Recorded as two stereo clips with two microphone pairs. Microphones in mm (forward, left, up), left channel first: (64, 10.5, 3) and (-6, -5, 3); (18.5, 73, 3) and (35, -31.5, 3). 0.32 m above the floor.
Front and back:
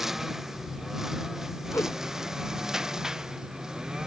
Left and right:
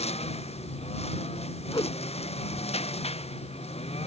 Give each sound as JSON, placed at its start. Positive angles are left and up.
{"t": 0.0, "sound": "a lawn mower", "azimuth_deg": 105}
{"t": 1.7, "sound": "a whoosh", "azimuth_deg": 60}